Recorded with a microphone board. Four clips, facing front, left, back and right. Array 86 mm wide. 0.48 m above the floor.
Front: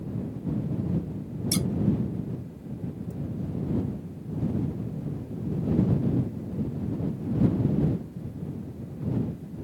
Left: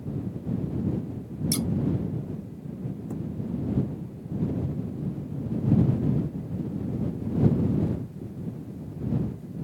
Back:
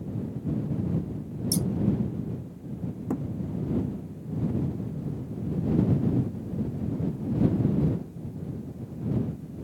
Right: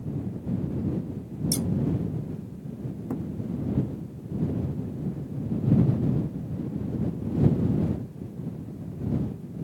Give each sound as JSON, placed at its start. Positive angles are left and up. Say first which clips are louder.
{"t": 1.5, "sound": "scissors", "louder": "left 1 dB, even", "azimuth_deg": 25}
{"t": 3.1, "sound": "a thud", "louder": "right 4 dB, back 6 dB", "azimuth_deg": -160}